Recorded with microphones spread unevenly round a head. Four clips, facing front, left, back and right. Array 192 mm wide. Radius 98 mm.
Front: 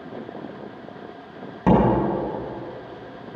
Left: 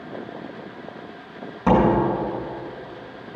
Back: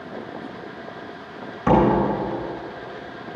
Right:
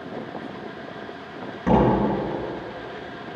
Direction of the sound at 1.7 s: 15° left.